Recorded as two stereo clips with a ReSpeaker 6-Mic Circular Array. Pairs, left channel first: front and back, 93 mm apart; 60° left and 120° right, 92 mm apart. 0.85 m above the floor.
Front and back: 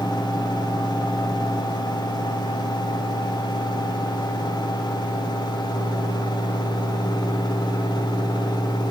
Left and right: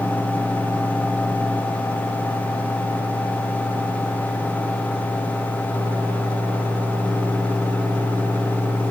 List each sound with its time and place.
Only background noise.